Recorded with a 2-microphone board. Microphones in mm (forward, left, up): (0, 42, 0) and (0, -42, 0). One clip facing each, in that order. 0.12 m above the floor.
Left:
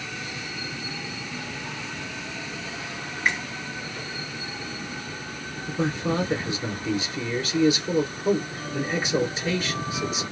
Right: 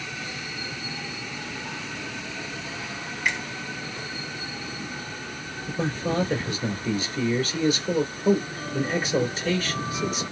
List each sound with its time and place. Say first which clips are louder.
3.2 s a finger snap: left 2 dB; 40° left (ahead or behind), 1.8 m
5.7 s a man speaking: left 1 dB; 20° left (ahead or behind), 1.8 m